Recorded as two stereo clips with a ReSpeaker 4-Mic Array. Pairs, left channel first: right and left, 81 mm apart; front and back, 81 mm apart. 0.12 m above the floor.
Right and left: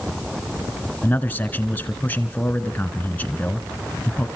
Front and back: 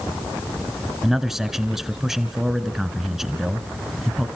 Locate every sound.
1.0 s a man speaking: 100° right, 1.2 m